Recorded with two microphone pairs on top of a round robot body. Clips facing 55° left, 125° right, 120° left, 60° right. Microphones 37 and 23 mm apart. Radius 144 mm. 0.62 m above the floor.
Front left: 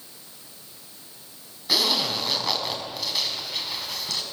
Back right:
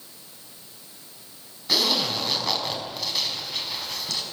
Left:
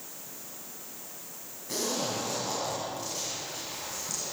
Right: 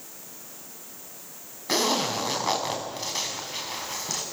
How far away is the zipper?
About 3.5 m.